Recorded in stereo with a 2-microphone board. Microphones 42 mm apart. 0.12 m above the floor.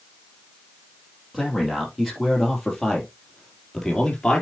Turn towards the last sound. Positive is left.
turn(degrees=10)  # may be behind; listen again after turning